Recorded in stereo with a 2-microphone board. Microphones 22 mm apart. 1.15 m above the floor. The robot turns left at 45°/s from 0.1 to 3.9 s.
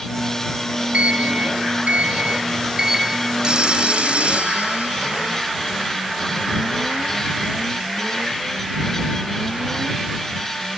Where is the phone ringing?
45° right (ahead or behind); by 5.5 s 65° right (ahead or behind).